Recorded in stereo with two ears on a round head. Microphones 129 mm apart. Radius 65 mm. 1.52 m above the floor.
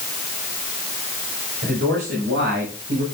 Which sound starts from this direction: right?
A man speaking, at 1.6 s.